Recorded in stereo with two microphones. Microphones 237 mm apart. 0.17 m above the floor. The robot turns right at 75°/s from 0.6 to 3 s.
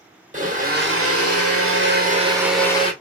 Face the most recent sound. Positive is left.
turn(degrees=35)